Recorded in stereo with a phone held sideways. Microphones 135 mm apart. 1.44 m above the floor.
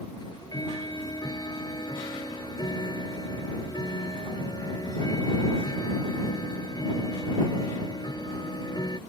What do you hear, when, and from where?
0.2 s ticking: 30° left (ahead or behind)